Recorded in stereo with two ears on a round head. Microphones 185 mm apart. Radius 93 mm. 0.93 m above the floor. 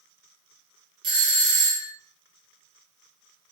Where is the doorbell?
25° right (ahead or behind), 0.9 m.